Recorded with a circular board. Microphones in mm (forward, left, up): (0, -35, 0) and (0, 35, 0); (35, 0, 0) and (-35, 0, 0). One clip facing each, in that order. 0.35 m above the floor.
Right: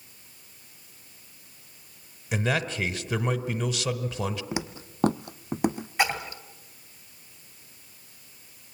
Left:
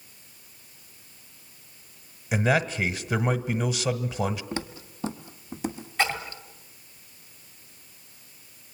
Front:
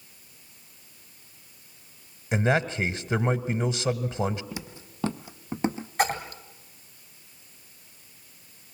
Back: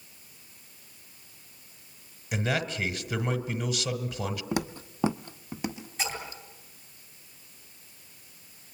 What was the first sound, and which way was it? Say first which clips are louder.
A man speaking: left 4 dB, front 5 dB; 25° left.